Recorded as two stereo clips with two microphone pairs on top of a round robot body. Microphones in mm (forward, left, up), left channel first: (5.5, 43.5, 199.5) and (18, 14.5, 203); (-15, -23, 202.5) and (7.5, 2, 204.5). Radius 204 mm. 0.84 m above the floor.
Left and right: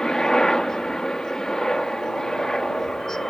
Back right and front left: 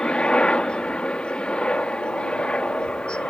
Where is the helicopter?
175° left.